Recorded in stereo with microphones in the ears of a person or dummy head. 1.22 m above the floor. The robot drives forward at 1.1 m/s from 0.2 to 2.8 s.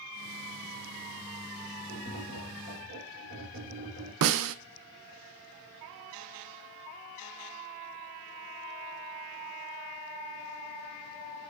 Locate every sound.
1.9 s tapping: 65° right (ahead or behind), 4.5 m; by 4.1 s 55° right (ahead or behind), 5 m
4.2 s a snare drum: 70° right (ahead or behind), 0.6 m